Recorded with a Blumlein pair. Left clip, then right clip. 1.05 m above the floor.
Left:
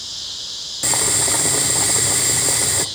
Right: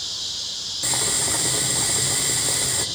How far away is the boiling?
About 1.4 m.